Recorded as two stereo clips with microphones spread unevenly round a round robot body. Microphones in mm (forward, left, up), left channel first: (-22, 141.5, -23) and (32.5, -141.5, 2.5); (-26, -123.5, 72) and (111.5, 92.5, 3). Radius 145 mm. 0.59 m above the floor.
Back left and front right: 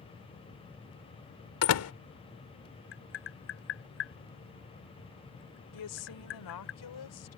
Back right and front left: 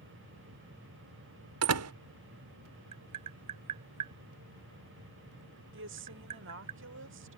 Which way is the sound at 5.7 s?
90° left.